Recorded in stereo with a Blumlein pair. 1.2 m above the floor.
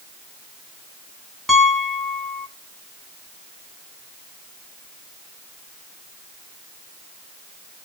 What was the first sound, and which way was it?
A piano, 5° right.